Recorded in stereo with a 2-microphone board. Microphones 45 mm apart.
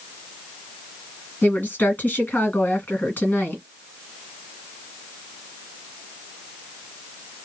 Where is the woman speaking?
45° left (ahead or behind), 2 m.